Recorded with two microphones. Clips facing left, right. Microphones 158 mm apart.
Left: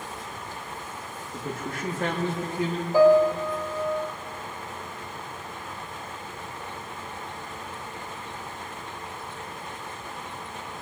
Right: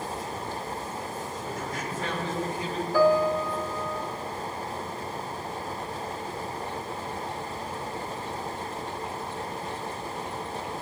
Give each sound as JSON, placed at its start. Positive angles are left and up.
{"t": 1.3, "sound": "a man speaking", "side_deg": 65, "distance_m": 1.7}
{"t": 2.9, "sound": "a piano", "side_deg": 20, "distance_m": 1.8}